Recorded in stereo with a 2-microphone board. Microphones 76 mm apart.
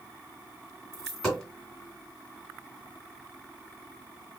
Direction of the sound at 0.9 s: 10° left (ahead or behind).